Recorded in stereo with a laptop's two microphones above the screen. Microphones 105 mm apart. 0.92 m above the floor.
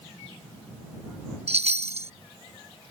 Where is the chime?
85° right.